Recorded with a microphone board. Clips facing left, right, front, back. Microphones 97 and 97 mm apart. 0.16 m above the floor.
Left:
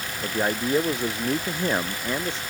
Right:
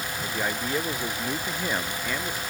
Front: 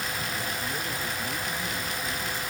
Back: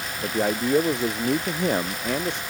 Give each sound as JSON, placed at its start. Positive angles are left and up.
{"t": 0.2, "sound": "a man speaking", "azimuth_deg": 160}